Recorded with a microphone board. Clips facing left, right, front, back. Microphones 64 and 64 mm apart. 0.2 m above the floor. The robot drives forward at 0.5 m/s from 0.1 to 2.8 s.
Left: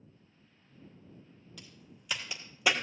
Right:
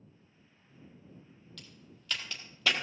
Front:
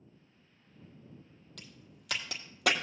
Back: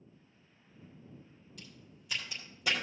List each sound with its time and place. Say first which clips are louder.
1.6 s a crack: left 1 dB, even; 10° left, 2 m; by 2.7 s 15° left, 1.4 m